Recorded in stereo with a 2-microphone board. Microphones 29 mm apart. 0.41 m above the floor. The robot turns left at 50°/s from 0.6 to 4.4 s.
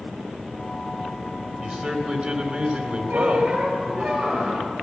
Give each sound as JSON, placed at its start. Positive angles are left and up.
{"t": 1.6, "sound": "a man speaking", "azimuth_deg": -50, "distance_m": 2.0}
{"t": 3.1, "sound": "a squeak", "azimuth_deg": -110, "distance_m": 4.5}